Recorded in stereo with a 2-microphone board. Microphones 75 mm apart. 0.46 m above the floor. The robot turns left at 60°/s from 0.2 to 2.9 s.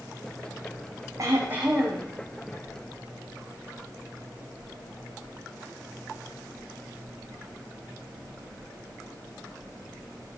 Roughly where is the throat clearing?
Behind right.